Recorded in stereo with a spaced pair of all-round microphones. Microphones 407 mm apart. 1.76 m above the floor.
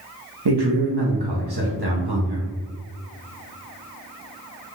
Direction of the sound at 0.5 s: 65° right (ahead or behind).